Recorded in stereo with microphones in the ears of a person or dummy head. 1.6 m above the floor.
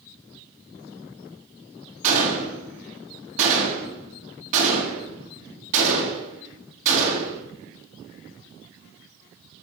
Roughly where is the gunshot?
Right.